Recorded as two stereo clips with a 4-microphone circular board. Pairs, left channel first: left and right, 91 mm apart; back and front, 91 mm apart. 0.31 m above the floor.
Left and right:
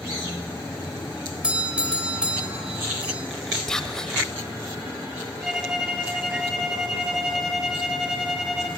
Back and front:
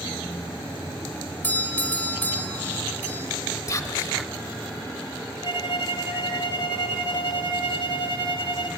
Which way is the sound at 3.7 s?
170° left.